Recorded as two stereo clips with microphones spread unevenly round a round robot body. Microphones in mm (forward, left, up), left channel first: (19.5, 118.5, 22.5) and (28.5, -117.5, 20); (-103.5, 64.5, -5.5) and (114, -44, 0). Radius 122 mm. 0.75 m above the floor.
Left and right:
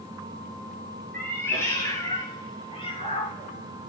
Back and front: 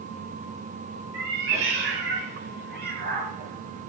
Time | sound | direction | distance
1.1 | a cat meowing | 10° left | 8 m